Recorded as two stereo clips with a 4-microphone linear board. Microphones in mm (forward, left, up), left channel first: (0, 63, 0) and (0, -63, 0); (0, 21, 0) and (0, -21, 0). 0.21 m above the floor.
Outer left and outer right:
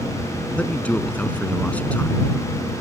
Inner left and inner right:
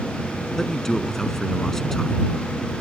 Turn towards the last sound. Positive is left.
turn(degrees=10)  # may be behind; listen again after turning